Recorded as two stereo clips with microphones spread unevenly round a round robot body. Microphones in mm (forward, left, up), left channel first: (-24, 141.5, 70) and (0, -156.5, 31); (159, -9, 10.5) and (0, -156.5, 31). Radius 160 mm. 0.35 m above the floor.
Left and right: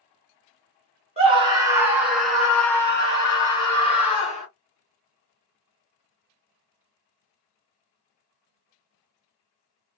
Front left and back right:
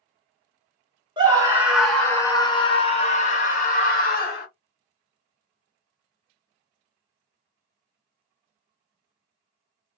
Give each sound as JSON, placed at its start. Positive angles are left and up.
{"t": 1.2, "sound": "a scream", "azimuth_deg": -85, "distance_m": 1.1}